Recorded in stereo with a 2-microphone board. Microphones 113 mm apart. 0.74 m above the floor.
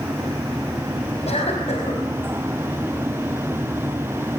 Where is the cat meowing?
I don't hear a cat meowing.